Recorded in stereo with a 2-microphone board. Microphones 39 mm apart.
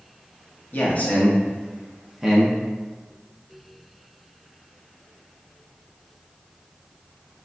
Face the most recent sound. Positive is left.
turn(degrees=-15)  # may be behind; listen again after turning